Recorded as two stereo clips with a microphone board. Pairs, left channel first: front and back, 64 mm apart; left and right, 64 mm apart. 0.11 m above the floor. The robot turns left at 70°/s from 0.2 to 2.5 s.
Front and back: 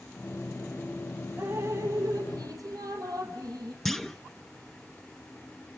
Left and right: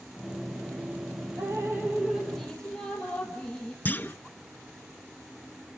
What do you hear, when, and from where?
1.4 s dripping: 115° right, 4 m; by 3.8 s 170° left, 4 m
3.9 s a clunk: 85° left, 0.8 m